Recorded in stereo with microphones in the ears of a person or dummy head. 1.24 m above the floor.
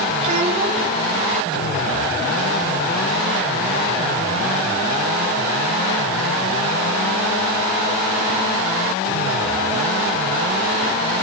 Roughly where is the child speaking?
Right.